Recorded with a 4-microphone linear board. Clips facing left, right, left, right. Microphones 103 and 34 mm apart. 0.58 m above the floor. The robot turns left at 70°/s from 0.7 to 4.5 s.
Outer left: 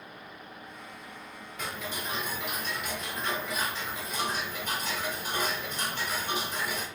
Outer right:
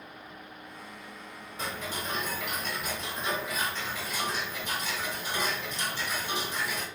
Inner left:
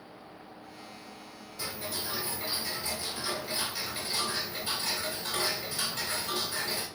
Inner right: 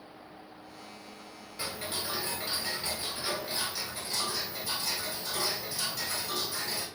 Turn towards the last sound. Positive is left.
turn(degrees=120)